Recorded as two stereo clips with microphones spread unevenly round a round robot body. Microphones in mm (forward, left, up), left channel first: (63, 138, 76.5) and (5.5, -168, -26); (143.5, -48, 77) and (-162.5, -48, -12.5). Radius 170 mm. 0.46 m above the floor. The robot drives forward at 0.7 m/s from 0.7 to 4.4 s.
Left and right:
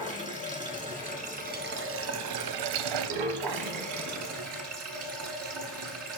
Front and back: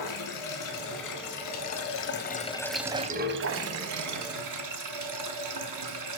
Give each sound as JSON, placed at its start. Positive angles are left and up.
{"t": 0.0, "sound": "running water", "azimuth_deg": -25, "distance_m": 1.6}